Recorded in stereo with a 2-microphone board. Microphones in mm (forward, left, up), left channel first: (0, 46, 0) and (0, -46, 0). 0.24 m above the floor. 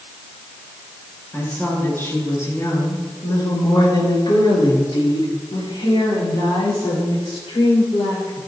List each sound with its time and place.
1.3 s a woman speaking: 20° left (ahead or behind), 4 m; by 8.4 s 75° left (ahead or behind), 6.5 m